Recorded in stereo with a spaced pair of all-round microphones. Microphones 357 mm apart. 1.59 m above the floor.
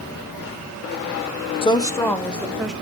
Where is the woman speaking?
15° left (ahead or behind), 0.7 m; by 2.7 s centre (ahead or behind), 1.4 m.